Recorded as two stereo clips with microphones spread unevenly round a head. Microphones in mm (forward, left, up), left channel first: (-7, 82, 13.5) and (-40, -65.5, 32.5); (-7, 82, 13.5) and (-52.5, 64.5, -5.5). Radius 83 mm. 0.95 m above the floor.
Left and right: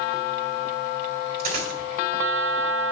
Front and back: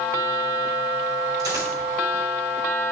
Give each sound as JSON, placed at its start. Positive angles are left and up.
{"t": 1.4, "sound": "a dropped coin", "azimuth_deg": -130, "distance_m": 2.5}